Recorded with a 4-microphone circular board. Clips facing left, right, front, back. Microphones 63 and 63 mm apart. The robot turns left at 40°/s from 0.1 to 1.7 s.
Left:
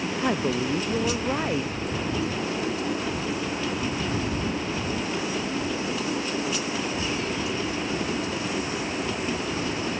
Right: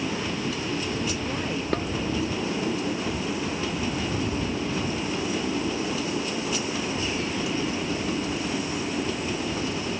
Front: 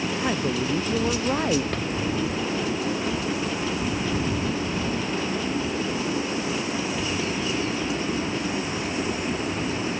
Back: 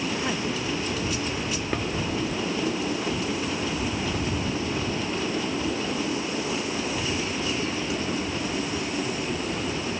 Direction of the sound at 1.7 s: 100° right.